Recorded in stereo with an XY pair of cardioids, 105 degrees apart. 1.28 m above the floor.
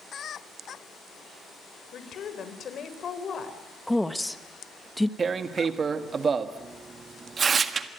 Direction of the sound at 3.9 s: 5° left.